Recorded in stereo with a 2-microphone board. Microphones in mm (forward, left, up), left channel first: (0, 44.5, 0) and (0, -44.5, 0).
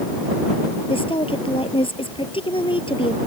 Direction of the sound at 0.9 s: 85° left.